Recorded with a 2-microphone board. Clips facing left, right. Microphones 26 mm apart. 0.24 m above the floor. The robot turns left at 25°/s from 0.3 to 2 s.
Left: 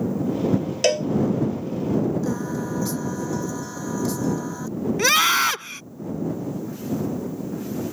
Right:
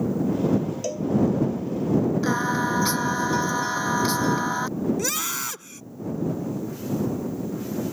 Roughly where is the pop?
No pop in this recording.